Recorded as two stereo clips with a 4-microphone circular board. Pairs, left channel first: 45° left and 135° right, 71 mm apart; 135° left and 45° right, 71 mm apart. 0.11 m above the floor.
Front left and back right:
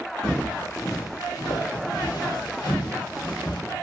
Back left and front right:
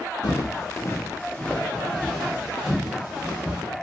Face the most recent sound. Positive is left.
turn(degrees=30)